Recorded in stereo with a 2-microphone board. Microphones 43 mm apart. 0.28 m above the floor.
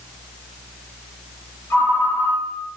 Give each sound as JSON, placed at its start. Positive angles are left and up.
{"t": 1.7, "sound": "a ringtone", "side_deg": 75, "distance_m": 3.5}